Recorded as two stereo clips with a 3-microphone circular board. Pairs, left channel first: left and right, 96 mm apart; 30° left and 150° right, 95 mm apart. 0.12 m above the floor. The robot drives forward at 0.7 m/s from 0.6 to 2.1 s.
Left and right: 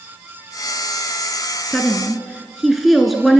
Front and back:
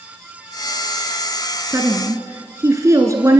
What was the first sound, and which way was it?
A woman speaking, straight behind.